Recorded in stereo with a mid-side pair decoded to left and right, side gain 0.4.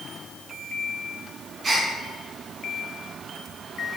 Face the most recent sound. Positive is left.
turn(degrees=-45)